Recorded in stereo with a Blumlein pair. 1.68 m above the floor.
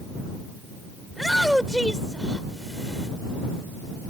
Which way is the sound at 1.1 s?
Straight ahead.